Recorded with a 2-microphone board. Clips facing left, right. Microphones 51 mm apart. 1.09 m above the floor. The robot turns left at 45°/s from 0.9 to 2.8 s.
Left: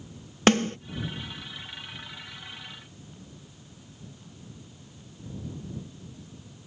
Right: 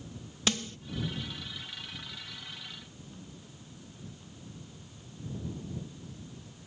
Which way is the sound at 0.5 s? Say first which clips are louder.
Left 12 dB; 50° left (ahead or behind).